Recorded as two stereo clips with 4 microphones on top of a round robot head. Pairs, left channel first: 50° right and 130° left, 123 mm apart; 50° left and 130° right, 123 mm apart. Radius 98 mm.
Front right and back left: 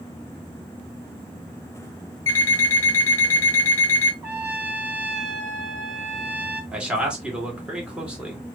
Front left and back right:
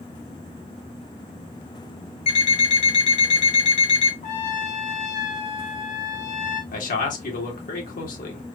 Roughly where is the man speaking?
Ahead left.